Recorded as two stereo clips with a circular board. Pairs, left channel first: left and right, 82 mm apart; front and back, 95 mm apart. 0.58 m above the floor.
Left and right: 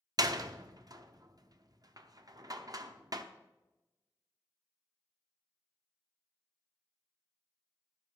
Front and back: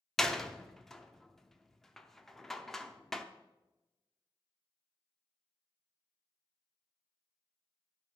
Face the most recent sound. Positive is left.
turn(degrees=-85)